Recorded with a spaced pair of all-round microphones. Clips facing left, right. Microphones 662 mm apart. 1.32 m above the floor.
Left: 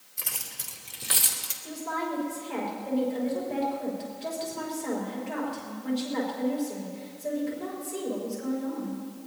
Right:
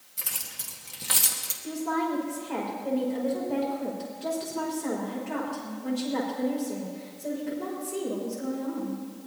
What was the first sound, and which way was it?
Keys jangling, 60° right (ahead or behind).